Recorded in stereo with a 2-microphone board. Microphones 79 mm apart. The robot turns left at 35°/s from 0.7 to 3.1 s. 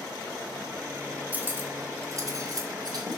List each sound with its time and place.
1.3 s cutlery clinking: 20° right (ahead or behind), 1.1 m; by 3.2 s 60° right (ahead or behind), 1.1 m